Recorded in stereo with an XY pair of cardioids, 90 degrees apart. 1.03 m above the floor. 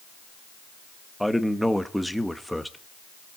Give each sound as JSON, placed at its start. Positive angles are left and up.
{"t": 1.2, "sound": "a man speaking", "azimuth_deg": 0, "distance_m": 1.3}